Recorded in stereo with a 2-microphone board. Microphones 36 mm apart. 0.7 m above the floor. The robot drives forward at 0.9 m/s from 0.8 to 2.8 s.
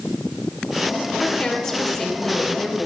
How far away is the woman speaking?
About 1.8 m.